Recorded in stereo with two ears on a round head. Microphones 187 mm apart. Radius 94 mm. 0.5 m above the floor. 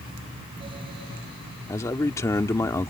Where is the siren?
No siren in this recording.